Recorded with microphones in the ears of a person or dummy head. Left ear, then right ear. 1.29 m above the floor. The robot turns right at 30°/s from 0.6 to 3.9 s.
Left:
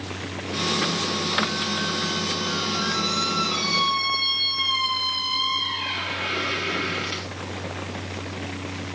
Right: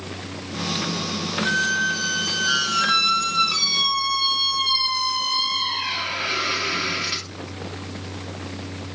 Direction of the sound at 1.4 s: 90° right.